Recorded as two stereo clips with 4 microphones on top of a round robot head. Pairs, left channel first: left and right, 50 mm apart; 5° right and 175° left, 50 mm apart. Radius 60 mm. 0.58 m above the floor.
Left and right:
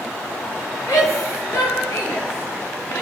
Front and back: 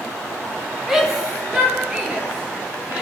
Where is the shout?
90° left, 6 m; by 3.0 s 110° left, 7.5 m.